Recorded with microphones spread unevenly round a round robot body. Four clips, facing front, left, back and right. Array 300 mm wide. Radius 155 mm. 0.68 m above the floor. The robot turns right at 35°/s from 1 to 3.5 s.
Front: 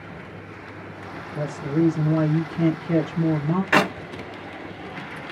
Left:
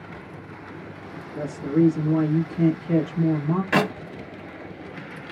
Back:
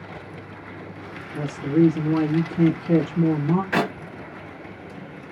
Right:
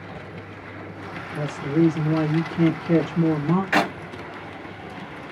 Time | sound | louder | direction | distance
1.4 | a woman speaking | even, back 3 dB | 160° left | 1.1 m
3.7 | a clap | left 2 dB, front 8 dB | 45° left | 1.5 m